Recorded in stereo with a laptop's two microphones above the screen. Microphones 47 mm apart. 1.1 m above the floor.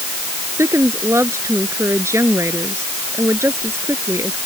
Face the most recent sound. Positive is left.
turn(degrees=-85)